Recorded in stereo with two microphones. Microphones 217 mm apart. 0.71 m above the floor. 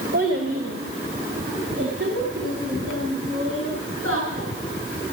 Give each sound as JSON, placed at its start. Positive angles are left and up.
{"t": 0.1, "sound": "a child speaking", "side_deg": -60, "distance_m": 1.7}